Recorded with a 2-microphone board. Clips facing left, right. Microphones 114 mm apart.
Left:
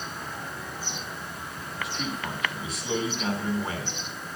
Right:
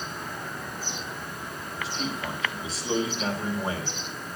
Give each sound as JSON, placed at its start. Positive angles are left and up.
{"t": 1.8, "sound": "a man speaking", "side_deg": -30, "distance_m": 4.5}